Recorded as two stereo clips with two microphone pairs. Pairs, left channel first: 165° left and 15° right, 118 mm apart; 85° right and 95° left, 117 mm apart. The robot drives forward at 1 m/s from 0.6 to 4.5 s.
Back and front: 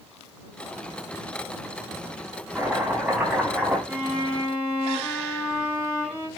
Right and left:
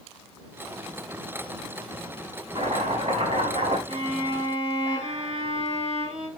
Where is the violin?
85° left, 6.5 m; by 6.3 s 90° left, 6.5 m.